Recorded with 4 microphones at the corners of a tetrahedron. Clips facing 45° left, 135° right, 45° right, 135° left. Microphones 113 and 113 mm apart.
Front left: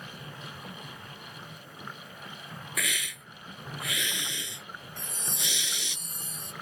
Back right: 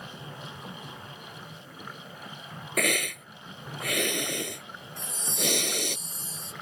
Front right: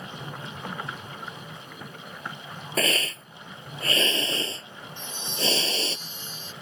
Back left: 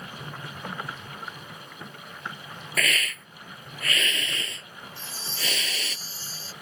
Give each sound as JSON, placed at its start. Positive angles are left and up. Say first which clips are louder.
{"t": 2.8, "sound": "a hiss", "louder": "back right 10 dB, front right 3 dB", "azimuth_deg": -105}
{"t": 5.0, "sound": "a chime", "louder": "back right 8 dB, front right 7 dB", "azimuth_deg": 80}